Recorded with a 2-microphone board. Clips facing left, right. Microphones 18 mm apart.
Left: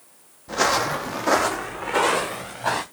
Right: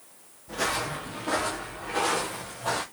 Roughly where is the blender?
No blender in this recording.